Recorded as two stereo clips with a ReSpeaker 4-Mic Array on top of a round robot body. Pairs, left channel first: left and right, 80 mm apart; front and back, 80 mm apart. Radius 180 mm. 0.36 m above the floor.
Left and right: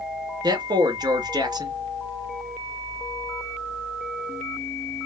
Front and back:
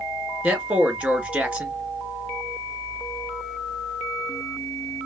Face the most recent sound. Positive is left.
turn(degrees=-110)